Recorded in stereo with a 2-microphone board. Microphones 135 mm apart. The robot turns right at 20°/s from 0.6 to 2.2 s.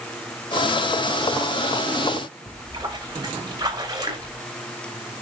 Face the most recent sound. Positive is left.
turn(degrees=-30)  # may be behind; listen again after turning